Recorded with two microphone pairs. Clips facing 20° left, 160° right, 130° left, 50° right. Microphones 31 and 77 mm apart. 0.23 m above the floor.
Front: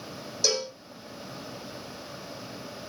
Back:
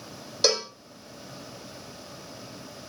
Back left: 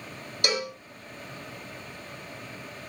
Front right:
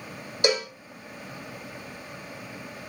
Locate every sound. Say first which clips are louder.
0.4 s a cowbell: back 3 dB, front right 4 dB; 120° right, 2 m